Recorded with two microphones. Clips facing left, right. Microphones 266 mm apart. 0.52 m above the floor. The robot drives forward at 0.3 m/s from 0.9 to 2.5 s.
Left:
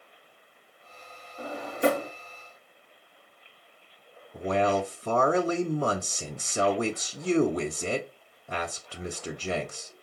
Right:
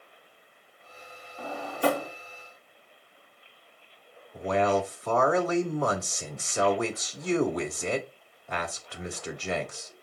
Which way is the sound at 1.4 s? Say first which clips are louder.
Left 2 dB; 20° left (ahead or behind).